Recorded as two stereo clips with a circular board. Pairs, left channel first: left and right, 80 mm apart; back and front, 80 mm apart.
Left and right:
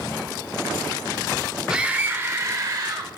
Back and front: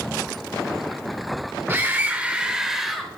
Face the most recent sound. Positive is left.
turn(degrees=-90)